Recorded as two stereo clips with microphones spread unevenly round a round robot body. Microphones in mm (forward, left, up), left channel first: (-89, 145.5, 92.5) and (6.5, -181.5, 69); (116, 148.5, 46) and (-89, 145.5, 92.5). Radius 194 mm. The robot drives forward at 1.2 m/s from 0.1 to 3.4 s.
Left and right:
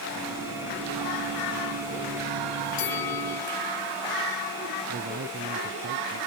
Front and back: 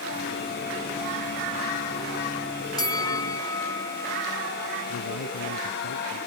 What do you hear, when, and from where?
2.8 s a bell: 70° left; by 4.4 s 75° left
4.9 s a man speaking: 10° right